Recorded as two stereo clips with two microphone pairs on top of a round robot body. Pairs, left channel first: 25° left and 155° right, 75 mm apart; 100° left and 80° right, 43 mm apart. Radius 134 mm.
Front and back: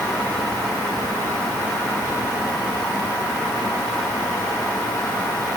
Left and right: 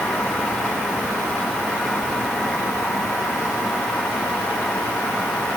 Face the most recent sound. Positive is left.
No sound to turn to.